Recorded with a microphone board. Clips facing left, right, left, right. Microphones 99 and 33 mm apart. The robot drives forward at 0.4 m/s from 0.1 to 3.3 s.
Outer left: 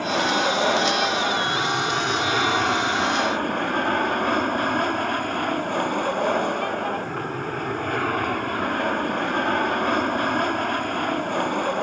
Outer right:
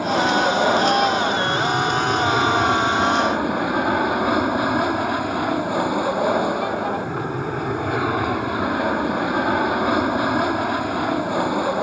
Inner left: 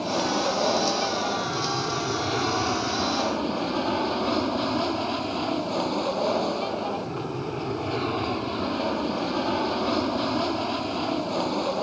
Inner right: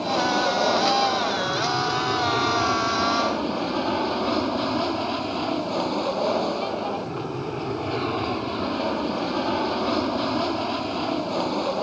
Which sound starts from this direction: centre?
An aircraft, at 0.0 s.